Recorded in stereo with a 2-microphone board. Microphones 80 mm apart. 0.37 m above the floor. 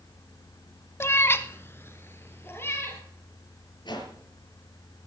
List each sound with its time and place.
1.0 s a cat meowing: 35° left (ahead or behind), 0.5 m; by 3.0 s 30° left (ahead or behind), 3 m
3.9 s a whoosh: 65° left (ahead or behind), 5.5 m